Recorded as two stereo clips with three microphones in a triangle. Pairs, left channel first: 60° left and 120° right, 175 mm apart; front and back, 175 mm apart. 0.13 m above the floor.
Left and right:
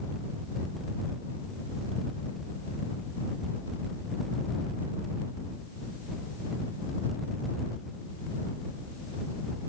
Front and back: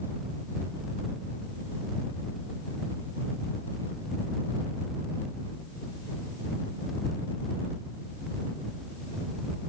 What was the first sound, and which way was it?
Only background noise.